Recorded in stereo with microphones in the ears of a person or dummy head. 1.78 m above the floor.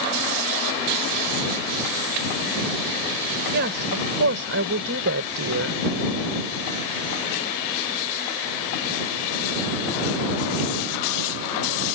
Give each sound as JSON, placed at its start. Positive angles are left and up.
{"t": 3.5, "sound": "a woman speaking", "side_deg": -60}